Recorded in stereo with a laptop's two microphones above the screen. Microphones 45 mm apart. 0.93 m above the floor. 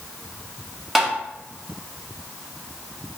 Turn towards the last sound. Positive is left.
turn(degrees=-5)  # may be behind; listen again after turning